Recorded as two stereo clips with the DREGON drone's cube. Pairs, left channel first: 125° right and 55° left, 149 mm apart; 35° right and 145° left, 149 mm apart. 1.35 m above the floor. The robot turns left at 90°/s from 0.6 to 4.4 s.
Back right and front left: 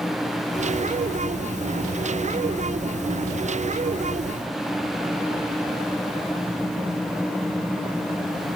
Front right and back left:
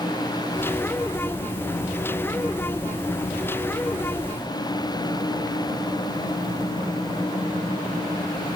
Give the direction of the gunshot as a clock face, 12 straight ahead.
I don't hear a gunshot.